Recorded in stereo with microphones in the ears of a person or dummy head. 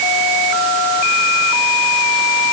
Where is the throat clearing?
I don't hear throat clearing.